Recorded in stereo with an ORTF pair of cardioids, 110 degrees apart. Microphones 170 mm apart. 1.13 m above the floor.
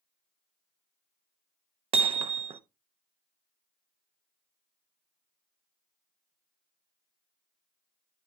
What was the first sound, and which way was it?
Hammering, 35° right.